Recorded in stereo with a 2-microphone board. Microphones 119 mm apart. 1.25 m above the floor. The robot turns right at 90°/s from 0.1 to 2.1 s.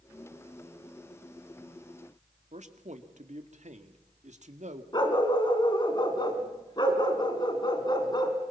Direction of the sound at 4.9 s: 40° left (ahead or behind).